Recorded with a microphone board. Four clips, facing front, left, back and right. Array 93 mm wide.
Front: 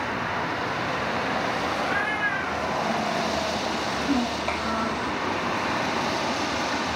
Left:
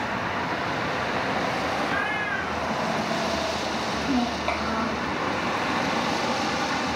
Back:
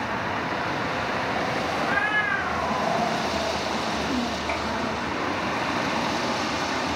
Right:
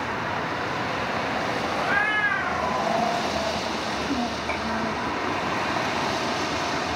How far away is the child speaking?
About 2 m.